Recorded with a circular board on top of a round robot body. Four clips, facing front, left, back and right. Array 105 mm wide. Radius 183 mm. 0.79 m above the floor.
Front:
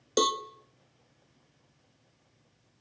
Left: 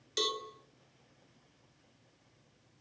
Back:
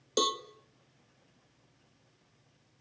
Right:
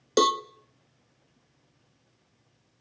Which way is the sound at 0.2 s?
80° right.